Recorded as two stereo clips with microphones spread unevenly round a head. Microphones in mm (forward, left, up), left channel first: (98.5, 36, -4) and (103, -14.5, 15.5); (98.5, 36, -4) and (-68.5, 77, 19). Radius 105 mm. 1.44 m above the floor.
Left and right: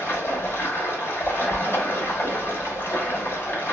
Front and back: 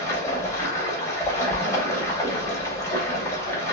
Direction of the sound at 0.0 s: 55° left.